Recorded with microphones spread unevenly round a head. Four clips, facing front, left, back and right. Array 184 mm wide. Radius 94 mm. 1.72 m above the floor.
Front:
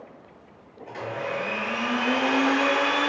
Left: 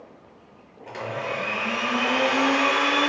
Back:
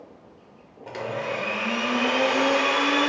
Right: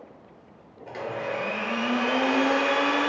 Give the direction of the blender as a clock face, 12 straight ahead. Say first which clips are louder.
Left 1 dB, back 2 dB; 6 o'clock.